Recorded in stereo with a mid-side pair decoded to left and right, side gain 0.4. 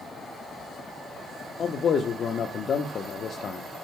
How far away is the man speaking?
About 0.9 m.